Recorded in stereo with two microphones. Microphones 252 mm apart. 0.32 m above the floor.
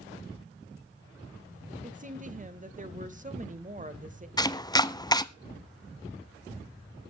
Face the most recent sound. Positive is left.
turn(degrees=15)  # may be behind; listen again after turning